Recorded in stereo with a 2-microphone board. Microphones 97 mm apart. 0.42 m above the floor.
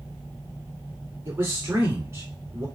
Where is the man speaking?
25° right (ahead or behind), 1.5 m.